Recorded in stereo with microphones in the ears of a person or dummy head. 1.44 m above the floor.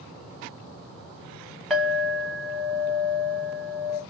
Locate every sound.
1.7 s a clink: centre (ahead or behind), 0.7 m